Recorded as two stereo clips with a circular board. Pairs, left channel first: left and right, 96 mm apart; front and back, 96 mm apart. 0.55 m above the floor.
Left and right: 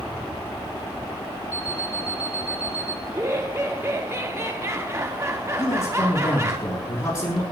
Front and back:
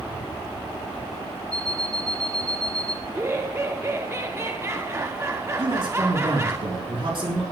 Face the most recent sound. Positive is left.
turn(degrees=150)